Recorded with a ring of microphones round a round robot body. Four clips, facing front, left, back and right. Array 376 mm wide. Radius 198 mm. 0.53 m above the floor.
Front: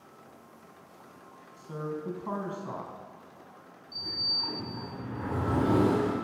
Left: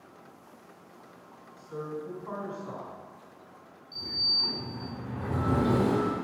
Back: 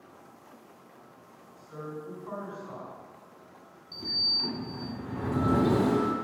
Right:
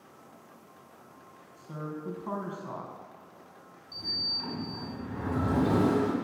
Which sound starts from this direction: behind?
A sliding door, at 3.9 s.